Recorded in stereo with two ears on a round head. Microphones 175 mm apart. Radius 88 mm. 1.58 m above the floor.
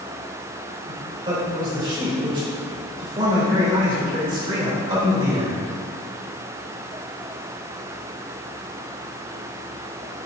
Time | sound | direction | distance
0.9 | a man speaking | 25° right (ahead or behind) | 2.5 m